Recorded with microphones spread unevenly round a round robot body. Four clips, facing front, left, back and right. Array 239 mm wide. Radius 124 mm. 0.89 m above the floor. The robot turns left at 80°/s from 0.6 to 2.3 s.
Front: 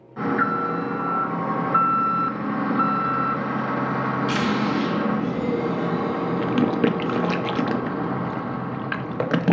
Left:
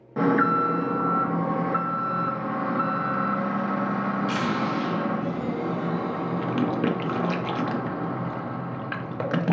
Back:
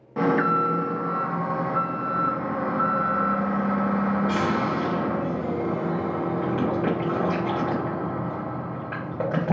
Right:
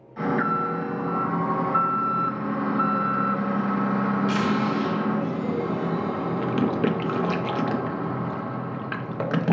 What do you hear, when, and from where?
0.2 s an alarm: 130° left, 0.6 m; by 9.5 s 10° right, 0.6 m